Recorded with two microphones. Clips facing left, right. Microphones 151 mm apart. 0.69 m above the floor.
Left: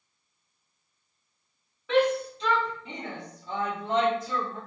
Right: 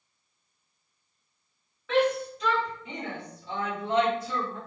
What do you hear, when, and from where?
1.9 s a shout: 15° left (ahead or behind), 1.2 m; by 4.6 s 50° left (ahead or behind), 1.9 m